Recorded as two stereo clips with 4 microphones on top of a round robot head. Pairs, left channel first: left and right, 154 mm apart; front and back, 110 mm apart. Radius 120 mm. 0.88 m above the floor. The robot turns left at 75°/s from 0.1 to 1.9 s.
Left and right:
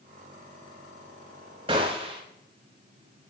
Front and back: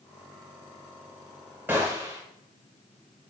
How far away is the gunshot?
About 0.6 m.